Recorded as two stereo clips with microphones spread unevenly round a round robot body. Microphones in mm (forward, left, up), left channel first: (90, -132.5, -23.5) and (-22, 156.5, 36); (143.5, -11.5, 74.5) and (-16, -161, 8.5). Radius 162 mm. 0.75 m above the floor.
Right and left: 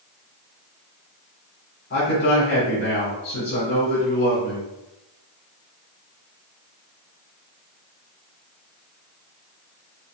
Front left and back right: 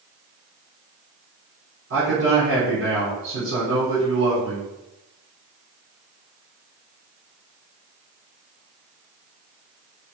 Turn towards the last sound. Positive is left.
turn(degrees=-125)